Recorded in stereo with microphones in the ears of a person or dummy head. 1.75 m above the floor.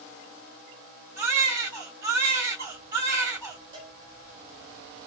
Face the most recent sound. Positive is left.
turn(degrees=-30)  # may be behind; listen again after turning